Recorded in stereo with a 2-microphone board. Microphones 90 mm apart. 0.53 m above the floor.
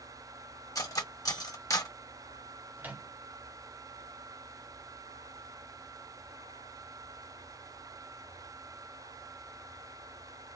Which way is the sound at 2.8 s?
20° right (ahead or behind).